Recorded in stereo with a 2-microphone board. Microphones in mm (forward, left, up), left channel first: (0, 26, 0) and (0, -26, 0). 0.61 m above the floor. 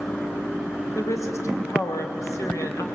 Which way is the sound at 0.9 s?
70° left (ahead or behind).